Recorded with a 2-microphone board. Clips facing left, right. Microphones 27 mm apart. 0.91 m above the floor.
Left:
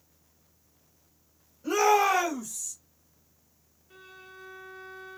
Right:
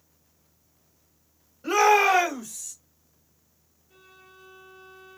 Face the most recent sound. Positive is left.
turn(degrees=50)  # may be behind; listen again after turning